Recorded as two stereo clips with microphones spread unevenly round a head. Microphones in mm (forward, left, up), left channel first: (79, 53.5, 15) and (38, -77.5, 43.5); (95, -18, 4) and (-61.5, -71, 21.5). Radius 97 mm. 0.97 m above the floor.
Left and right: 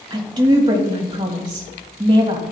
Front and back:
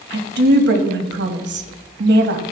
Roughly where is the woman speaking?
Behind.